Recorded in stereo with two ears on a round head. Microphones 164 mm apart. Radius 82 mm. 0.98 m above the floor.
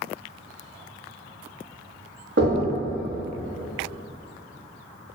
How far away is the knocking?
About 1.0 m.